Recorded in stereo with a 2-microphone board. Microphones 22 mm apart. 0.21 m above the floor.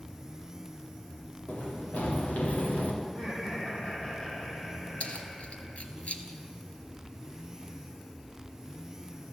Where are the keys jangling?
70° left (ahead or behind), 2 m.